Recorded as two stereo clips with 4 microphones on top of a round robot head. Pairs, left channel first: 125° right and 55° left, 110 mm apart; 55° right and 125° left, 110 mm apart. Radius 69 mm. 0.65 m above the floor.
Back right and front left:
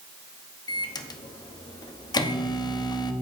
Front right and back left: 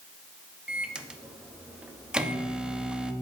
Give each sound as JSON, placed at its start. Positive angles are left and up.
{"t": 0.7, "sound": "a microwave", "azimuth_deg": -155, "distance_m": 0.9}